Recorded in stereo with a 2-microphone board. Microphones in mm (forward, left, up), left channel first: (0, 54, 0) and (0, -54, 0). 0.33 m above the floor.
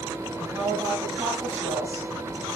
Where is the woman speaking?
30° right (ahead or behind), 5.5 m.